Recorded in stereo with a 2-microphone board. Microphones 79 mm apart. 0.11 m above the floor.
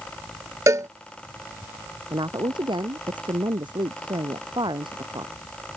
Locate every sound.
0.7 s a cowbell: 40° right (ahead or behind)
2.1 s a woman speaking: 75° right (ahead or behind)